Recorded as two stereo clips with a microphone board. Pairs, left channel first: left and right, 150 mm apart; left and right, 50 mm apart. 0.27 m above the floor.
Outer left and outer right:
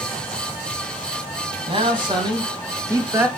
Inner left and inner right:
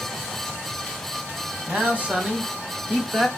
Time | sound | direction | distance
1.7 | a man speaking | 35° right (ahead or behind) | 2.5 m